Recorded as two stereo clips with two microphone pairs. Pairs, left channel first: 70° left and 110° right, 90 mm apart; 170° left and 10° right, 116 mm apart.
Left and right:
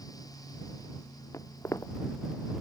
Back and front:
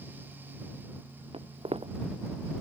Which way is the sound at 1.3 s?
15° left.